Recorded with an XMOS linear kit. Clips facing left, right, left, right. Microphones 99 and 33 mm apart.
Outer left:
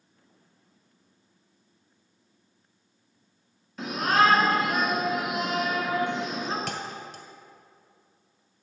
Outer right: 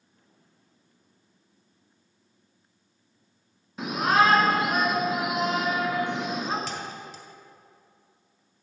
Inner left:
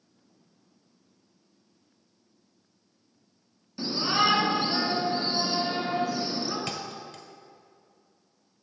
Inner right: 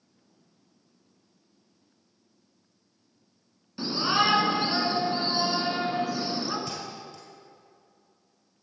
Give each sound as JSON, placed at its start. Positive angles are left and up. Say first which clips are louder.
{"t": 3.8, "sound": "a shout", "louder": "outer right 1 dB, inner right 1 dB", "side_deg": -20, "distance_m": 1.7}
{"t": 6.7, "sound": "a thud", "louder": "outer left 1 dB, inner left 1 dB", "side_deg": 55, "distance_m": 1.6}